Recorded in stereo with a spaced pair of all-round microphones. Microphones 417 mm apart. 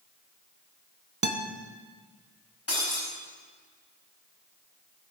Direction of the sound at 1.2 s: 40° right (ahead or behind).